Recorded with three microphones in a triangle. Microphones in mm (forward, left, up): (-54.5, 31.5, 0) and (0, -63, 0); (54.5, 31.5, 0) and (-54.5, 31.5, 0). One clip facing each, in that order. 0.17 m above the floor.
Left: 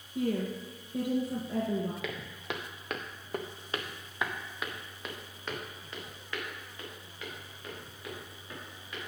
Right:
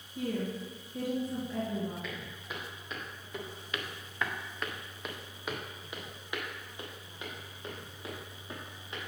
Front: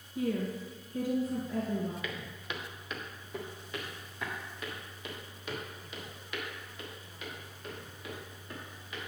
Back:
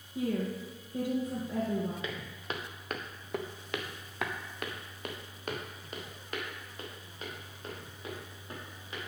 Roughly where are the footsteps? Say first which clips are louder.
Left 4 dB, back 1 dB; behind left.